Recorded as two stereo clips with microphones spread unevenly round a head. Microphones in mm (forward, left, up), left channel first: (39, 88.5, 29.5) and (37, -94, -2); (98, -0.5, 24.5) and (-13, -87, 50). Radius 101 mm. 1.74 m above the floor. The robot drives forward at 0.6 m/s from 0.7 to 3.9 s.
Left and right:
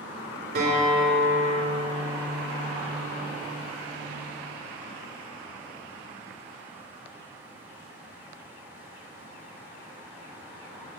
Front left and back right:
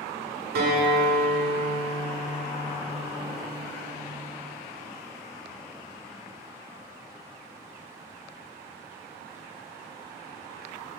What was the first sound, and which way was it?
A guitar, 140° right.